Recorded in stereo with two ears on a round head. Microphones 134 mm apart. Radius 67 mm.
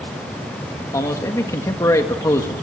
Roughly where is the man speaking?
Left.